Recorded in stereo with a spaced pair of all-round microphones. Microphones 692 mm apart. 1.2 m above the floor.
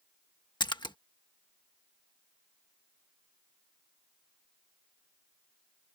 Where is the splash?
5° left (ahead or behind).